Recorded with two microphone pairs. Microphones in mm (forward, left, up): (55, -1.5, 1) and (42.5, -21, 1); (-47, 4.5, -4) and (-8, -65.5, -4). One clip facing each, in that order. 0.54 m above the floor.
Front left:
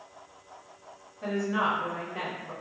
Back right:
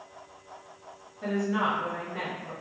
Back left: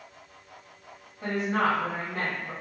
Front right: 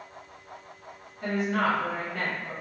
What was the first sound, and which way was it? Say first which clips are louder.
A woman speaking: even, even; 155° left.